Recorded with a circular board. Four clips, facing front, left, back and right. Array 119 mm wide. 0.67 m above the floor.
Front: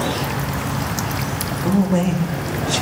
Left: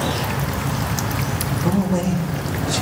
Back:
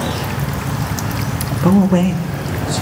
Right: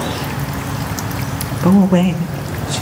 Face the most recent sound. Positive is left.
turn(degrees=-5)